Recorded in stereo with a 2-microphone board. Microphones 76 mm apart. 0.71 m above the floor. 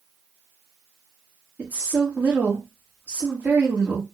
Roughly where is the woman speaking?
Right.